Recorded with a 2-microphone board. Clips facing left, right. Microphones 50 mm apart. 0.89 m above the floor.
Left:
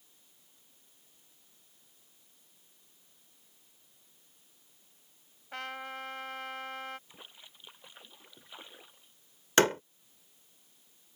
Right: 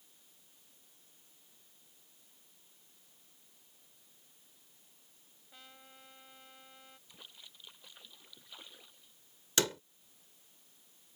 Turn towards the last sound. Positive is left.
turn(degrees=50)  # may be behind; listen again after turning